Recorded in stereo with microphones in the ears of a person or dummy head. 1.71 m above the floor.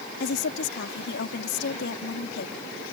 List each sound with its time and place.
0.2 s a woman speaking: 60° left (ahead or behind)